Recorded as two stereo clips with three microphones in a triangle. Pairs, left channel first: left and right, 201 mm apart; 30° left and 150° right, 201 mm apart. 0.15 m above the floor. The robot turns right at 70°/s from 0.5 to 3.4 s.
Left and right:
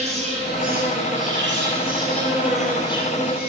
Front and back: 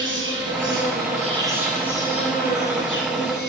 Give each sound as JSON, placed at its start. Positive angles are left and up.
{"t": 0.0, "sound": "an insect", "azimuth_deg": -145, "distance_m": 1.6}